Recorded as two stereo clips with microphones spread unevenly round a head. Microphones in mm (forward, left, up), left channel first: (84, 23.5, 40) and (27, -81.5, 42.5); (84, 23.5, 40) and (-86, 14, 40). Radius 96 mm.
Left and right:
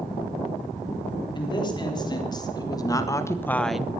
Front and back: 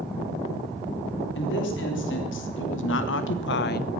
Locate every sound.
1.4 s a woman speaking: 10° left, 4 m; by 3.9 s 45° right, 0.6 m